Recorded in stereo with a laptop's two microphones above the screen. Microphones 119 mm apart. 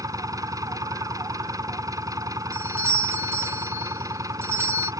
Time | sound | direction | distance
0.0 | an engine running | 30° right (ahead or behind) | ?
2.5 | a doorbell | 20° right (ahead or behind) | ?